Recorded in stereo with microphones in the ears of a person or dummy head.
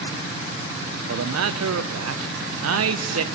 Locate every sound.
1.1 s a man speaking: 80° right, 0.7 m